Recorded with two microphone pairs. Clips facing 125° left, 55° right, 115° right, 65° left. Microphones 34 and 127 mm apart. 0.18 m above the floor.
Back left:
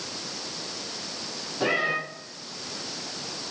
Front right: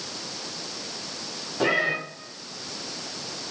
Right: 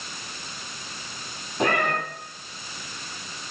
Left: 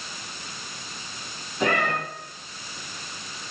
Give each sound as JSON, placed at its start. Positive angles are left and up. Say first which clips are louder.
{"t": 1.6, "sound": "a cat meowing", "louder": "front right 2 dB, right 1 dB", "azimuth_deg": -80, "distance_m": 10.0}